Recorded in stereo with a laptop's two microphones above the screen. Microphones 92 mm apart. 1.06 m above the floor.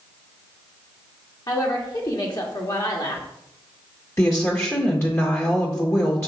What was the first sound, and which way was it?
A woman speaking, 45° left (ahead or behind).